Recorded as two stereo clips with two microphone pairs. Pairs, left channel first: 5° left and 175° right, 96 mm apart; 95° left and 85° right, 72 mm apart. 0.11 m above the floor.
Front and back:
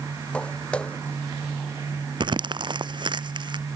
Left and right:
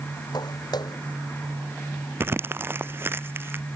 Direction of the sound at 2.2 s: 145° right.